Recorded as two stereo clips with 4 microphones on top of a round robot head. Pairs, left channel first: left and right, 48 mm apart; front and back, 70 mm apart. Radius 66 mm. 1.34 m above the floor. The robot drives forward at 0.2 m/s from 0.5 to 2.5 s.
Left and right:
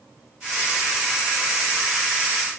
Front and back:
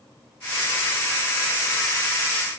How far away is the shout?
No shout in this recording.